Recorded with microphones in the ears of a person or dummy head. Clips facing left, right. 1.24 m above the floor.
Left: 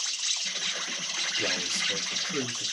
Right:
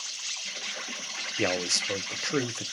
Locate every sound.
0.0 s an insect: 60° left (ahead or behind), 2 m
1.4 s a man speaking: 70° right (ahead or behind), 0.6 m